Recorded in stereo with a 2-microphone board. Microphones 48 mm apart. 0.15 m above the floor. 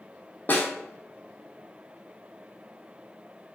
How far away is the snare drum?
About 1.1 m.